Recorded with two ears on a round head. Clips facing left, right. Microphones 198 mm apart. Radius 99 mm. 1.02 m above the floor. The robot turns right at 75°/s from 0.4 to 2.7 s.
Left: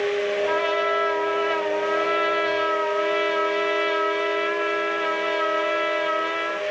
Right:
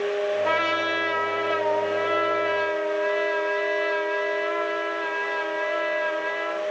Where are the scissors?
No scissors in this recording.